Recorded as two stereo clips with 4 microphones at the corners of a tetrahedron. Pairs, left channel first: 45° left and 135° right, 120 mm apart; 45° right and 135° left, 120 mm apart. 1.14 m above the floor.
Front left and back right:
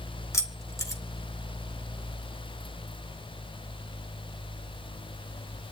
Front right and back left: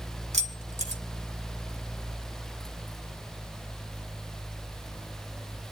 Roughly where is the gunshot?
No gunshot in this recording.